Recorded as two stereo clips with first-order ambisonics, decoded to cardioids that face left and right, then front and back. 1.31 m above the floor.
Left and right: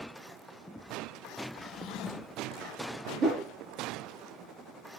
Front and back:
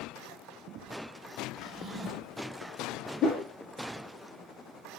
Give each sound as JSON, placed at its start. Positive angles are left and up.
{"t": 1.6, "sound": "a drawer", "azimuth_deg": 105, "distance_m": 0.8}
{"t": 3.2, "sound": "a whoosh", "azimuth_deg": -50, "distance_m": 1.2}